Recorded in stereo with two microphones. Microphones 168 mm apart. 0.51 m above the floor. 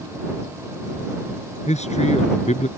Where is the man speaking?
45° left (ahead or behind).